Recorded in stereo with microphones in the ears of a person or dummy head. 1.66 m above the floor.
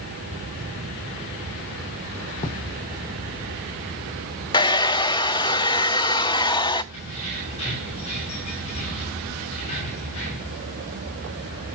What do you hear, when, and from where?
2.4 s writing: 20° left (ahead or behind), 1.0 m
4.5 s a hair dryer: 20° left (ahead or behind), 0.6 m
6.9 s keys jangling: 35° left (ahead or behind), 6.5 m